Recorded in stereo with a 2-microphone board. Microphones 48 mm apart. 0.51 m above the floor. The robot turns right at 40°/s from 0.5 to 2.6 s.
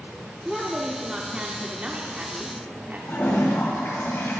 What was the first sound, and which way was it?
A woman speaking, 170° right.